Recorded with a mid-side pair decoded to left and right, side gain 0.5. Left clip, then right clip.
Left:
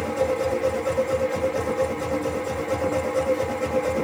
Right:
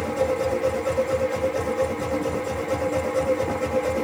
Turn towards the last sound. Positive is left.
turn(degrees=5)